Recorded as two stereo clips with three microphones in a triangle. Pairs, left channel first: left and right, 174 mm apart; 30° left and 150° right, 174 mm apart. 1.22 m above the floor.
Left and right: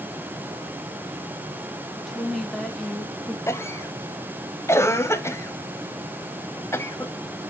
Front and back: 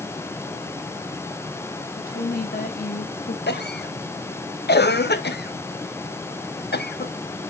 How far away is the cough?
About 0.9 m.